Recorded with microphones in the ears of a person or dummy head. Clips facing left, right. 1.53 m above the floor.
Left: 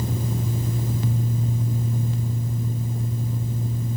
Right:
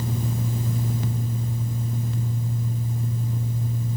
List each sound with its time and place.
Only background noise.